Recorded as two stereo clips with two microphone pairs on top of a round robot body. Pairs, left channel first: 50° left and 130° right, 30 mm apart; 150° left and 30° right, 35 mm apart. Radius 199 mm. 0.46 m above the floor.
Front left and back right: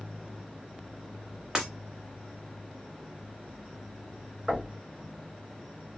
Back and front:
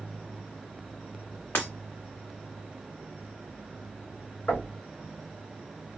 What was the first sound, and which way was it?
Breaking glass, 160° left.